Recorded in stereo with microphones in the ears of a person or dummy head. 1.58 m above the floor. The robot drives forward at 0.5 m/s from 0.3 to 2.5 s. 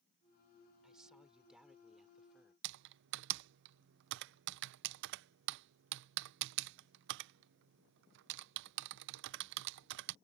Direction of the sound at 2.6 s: 65° right (ahead or behind).